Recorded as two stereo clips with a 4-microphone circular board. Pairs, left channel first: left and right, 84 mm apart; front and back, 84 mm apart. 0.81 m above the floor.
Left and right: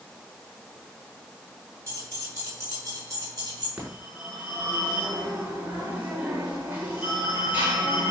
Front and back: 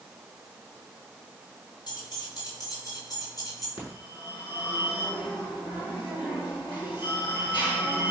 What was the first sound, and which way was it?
Keys jangling, 35° right.